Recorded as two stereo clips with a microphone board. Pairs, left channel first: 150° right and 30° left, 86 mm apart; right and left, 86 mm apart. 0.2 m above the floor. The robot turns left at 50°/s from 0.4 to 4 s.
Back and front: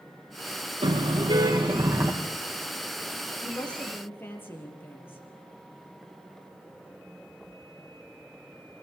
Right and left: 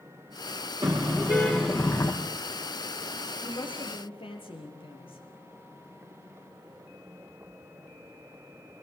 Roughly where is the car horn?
Ahead left.